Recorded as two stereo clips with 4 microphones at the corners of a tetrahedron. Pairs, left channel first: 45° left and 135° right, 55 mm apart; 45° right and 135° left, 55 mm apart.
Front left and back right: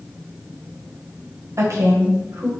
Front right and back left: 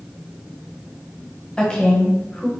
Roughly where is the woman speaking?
Behind right.